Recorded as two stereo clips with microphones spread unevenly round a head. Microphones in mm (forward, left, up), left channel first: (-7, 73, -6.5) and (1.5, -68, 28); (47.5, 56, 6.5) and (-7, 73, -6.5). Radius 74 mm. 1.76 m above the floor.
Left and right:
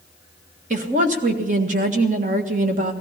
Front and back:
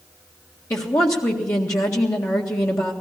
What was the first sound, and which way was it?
A woman speaking, 60° right.